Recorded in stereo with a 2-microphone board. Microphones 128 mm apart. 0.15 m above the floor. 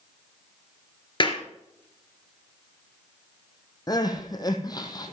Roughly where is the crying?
Left.